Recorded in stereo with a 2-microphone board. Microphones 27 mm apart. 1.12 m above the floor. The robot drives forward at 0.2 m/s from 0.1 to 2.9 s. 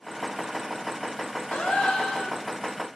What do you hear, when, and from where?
1.5 s a gasp: 55° left (ahead or behind), 0.6 m; by 2.4 s 45° left (ahead or behind), 0.8 m